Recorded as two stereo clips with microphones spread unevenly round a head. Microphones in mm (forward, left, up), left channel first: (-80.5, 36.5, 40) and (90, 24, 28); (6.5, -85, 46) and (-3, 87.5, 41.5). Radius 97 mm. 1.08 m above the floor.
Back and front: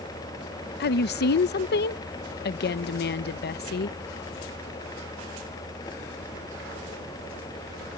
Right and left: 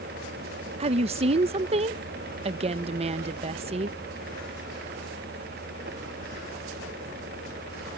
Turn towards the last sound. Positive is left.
turn(degrees=150)